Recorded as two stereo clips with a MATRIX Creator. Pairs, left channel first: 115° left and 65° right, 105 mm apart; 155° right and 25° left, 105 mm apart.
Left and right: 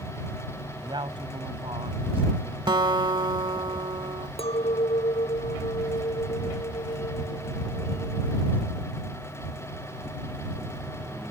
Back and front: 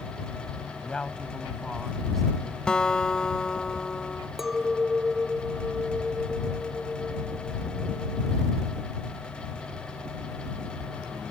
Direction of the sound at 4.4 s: 110° left.